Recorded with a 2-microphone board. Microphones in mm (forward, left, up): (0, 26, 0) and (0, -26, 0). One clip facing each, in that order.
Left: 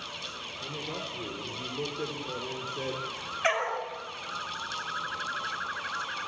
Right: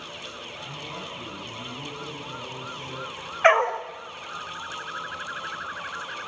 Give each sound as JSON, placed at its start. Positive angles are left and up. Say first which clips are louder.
{"t": 0.6, "sound": "a man speaking", "louder": "left 1 dB", "side_deg": 45, "distance_m": 7.0}
{"t": 3.4, "sound": "a dog barking", "louder": "right 10 dB", "side_deg": -45, "distance_m": 3.0}